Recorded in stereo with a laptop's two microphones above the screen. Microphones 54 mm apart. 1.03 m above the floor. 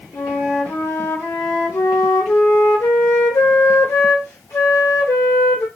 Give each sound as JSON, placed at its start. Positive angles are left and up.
{"t": 0.1, "sound": "a flute", "side_deg": 80, "distance_m": 2.0}